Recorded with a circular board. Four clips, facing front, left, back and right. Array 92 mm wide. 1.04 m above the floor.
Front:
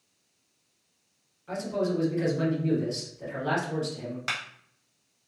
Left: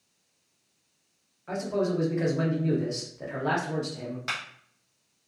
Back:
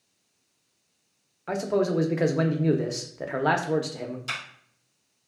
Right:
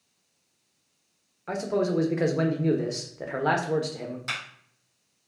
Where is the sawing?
No sawing in this recording.